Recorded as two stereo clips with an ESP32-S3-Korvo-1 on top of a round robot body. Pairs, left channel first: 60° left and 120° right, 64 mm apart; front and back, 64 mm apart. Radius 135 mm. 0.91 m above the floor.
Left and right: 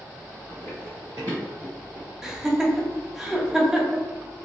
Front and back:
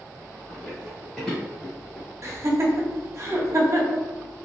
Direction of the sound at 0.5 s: 60° right.